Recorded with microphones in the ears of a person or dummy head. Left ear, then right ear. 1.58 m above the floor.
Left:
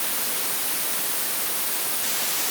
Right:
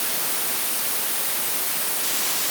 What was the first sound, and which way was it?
Only background noise.